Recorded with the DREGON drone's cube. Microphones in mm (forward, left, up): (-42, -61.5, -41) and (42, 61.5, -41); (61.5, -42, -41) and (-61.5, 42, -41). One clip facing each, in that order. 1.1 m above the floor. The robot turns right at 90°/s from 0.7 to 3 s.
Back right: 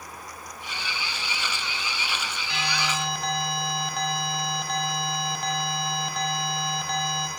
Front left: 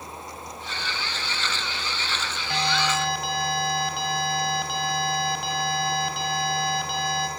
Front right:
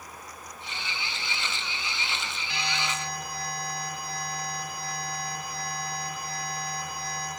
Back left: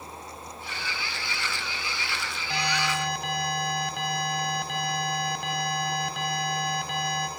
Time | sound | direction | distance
2.5 | an alarm | 100° left | 4 m